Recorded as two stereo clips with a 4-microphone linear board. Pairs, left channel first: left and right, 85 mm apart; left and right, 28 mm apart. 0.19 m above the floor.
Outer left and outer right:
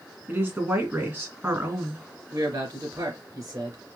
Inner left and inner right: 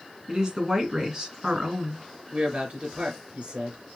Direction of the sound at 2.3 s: 50° right (ahead or behind).